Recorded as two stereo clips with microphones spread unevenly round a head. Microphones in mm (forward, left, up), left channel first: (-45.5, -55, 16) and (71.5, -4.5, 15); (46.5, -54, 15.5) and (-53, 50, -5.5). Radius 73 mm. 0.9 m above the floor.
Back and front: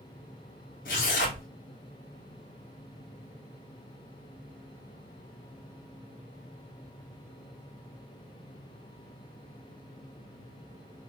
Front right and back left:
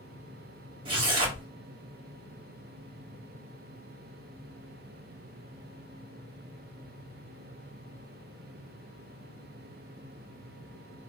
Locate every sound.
0.8 s tearing paper: 175° right, 1.7 m